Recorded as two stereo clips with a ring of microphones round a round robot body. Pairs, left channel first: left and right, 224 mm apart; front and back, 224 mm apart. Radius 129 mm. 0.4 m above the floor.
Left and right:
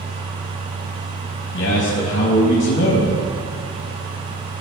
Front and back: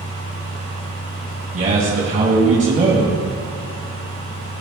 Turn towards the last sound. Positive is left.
turn(degrees=125)